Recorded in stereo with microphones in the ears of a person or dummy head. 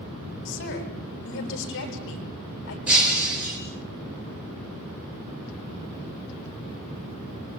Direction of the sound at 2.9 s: 10° right (ahead or behind).